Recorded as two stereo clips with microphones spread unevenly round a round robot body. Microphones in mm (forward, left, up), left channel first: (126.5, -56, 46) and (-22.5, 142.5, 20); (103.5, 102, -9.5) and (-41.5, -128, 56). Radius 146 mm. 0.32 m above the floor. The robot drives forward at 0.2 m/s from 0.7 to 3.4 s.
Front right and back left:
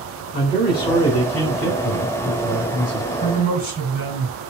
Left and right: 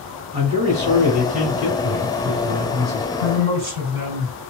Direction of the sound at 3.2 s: 165° right.